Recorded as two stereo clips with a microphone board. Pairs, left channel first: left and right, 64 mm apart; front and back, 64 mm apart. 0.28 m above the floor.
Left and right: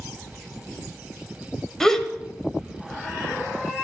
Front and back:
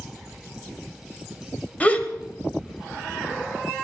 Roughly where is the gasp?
Ahead.